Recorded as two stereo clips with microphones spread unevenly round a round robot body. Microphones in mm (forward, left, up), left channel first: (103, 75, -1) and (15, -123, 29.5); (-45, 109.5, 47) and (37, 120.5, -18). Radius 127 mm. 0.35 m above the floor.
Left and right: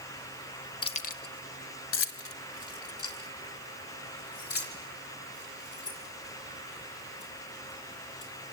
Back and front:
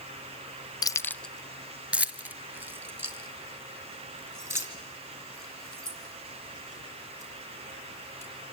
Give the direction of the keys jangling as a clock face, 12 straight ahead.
9 o'clock.